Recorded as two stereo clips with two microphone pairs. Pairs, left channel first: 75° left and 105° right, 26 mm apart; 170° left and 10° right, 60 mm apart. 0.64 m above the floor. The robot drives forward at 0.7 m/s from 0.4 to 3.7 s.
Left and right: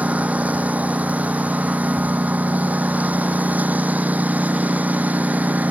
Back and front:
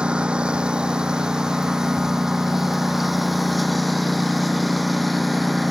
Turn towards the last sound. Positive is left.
turn(degrees=-100)